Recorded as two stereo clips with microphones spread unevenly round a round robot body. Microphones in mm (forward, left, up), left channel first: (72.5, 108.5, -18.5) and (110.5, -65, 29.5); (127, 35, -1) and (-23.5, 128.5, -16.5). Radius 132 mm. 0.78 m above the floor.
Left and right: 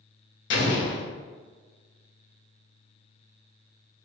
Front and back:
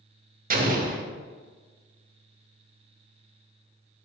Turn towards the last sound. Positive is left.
turn(degrees=120)